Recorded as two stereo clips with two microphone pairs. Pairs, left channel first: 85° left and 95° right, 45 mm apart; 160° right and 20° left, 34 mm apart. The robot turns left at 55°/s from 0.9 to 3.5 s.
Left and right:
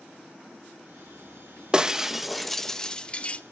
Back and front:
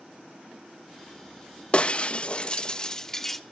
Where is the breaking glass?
145° right, 0.7 m; by 3.4 s 120° left, 0.7 m.